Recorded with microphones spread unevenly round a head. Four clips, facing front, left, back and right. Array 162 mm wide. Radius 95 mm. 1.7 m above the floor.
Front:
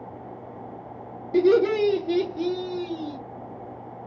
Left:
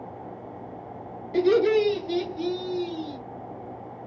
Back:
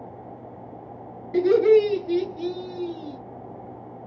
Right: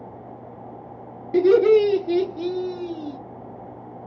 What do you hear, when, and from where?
1.3 s laughter: 95° right, 1.0 m; by 3.2 s 20° right, 1.1 m